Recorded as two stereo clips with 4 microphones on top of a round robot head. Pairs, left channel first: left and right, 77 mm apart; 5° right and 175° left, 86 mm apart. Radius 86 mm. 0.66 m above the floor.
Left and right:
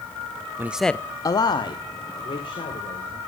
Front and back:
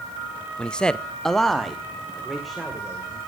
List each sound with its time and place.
0.6 s a man speaking: 75° right, 0.6 m; by 3.2 s 85° left, 3 m